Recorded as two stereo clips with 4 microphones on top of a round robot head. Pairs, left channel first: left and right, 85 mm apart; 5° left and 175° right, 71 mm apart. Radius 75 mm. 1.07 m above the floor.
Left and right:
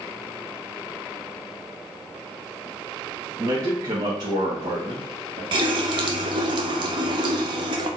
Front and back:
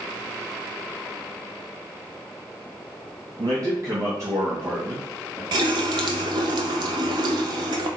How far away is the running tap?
About 0.7 m.